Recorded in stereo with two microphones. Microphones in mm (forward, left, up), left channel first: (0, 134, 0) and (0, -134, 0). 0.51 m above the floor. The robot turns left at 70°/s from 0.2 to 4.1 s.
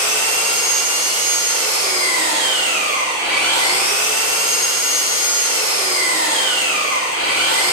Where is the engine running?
45° left, 1.2 m; by 7.7 s 130° left, 1.2 m.